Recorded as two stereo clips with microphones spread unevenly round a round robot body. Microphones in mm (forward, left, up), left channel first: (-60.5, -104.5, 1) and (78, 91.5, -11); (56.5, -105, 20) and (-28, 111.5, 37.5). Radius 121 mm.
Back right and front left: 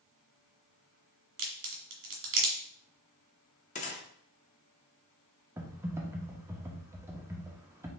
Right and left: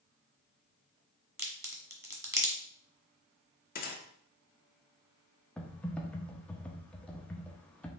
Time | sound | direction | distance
1.4 | a crack | 35° left | 1.5 m
3.8 | a gunshot | 80° right | 1.0 m
5.6 | typing on a keyboard | straight ahead | 0.8 m